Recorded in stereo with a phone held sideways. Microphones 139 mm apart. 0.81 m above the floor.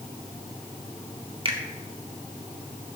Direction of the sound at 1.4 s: 40° right (ahead or behind).